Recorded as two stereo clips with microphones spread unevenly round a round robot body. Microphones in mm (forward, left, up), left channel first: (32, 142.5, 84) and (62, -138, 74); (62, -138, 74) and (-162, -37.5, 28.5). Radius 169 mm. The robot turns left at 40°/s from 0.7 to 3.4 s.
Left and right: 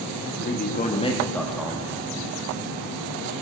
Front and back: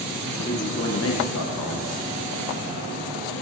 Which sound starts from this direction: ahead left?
A man speaking, at 0.2 s.